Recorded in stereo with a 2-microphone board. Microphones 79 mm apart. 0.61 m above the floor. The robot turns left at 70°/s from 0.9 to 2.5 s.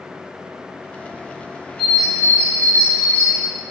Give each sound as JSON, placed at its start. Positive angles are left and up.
{"t": 1.8, "sound": "a bird", "azimuth_deg": 0, "distance_m": 2.5}